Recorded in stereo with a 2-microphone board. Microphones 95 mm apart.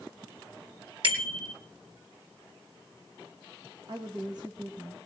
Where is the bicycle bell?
60° right (ahead or behind), 3 m.